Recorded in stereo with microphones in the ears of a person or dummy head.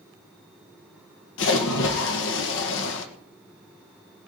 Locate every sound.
1.4 s a splash: 75° left (ahead or behind), 1.6 m